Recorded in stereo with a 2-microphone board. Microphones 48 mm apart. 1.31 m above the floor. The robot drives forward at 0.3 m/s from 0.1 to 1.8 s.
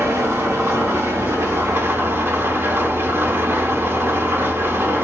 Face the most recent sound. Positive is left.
turn(degrees=-65)  # may be behind; listen again after turning